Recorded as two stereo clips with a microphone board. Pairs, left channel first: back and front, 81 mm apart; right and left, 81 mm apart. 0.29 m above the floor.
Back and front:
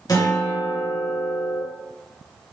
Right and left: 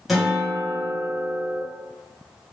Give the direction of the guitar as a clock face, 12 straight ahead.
6 o'clock.